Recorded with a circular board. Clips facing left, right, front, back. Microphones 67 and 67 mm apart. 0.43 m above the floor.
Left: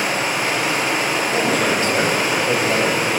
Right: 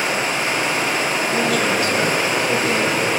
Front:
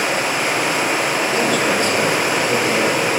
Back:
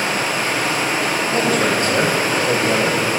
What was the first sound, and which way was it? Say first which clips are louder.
Running water: even, front 1 dB; 10° left.